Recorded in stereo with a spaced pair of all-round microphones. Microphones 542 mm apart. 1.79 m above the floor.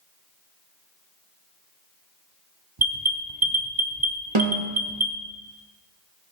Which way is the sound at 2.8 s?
40° right (ahead or behind).